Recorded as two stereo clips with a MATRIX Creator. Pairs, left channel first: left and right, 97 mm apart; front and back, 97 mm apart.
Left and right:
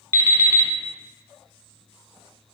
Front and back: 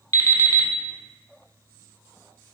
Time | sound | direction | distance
0.1 | an alarm clock | 40° right | 0.6 m